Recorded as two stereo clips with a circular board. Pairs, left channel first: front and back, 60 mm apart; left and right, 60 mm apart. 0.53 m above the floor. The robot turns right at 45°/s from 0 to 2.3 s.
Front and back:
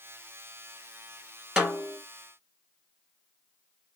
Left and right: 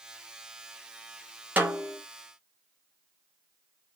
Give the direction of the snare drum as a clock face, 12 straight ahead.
4 o'clock.